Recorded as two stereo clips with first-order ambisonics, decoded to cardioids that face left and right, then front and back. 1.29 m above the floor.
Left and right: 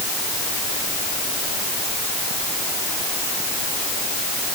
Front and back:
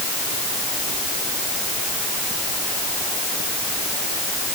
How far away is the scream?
No scream in this recording.